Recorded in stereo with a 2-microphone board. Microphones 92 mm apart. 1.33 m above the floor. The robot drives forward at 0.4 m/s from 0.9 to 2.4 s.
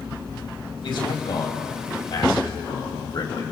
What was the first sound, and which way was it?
A man speaking, 60° left (ahead or behind).